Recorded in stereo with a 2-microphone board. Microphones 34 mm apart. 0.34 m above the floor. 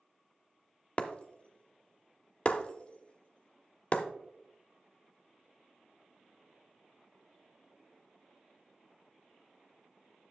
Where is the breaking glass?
30° left (ahead or behind), 0.7 m.